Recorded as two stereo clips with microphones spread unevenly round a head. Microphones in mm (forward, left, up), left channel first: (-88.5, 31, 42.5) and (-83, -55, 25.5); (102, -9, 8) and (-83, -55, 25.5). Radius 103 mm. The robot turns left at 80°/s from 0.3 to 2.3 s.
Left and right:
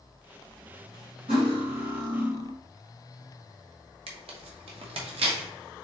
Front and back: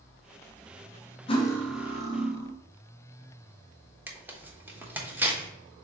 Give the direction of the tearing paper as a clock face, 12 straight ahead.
3 o'clock.